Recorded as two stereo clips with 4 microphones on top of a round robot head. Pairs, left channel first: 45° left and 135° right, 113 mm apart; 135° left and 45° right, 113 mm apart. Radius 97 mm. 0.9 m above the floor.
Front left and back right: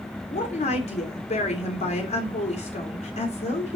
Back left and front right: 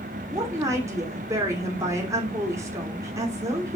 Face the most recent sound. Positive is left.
turn(degrees=20)